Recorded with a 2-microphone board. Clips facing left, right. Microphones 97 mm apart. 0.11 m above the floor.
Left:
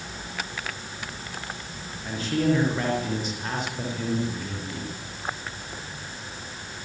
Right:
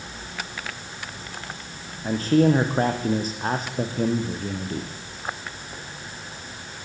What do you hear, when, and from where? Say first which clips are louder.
2.0 s a man speaking: right 6 dB; 40° right (ahead or behind), 7 m